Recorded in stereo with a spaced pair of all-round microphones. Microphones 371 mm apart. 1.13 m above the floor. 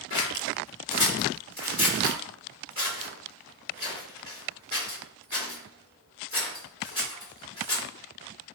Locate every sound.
0.1 s scissors: 35° left (ahead or behind), 2.0 m